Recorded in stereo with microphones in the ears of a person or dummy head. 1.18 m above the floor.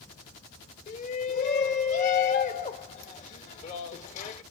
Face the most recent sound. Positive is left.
turn(degrees=40)  # may be behind; listen again after turning